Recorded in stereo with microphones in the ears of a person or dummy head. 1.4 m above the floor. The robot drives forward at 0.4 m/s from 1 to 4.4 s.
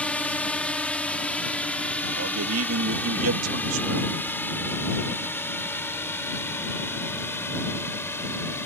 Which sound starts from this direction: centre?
A drone, at 0.0 s.